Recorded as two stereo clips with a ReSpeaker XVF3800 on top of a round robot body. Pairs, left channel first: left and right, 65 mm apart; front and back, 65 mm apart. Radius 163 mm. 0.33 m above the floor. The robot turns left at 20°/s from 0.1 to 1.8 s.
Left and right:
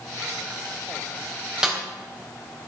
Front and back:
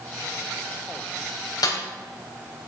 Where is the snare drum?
10° right, 3.5 m; by 1.8 s 15° right, 3.5 m.